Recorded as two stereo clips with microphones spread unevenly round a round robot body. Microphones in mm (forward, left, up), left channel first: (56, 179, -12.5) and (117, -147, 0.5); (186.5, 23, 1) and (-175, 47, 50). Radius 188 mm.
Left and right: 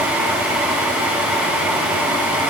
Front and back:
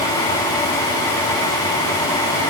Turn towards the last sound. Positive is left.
No sound to turn to.